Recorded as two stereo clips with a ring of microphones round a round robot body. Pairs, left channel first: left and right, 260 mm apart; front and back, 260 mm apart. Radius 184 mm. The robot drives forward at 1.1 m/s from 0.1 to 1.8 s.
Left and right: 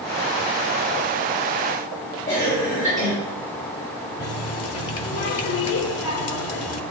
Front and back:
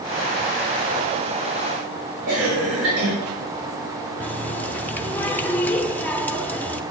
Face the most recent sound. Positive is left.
turn(degrees=85)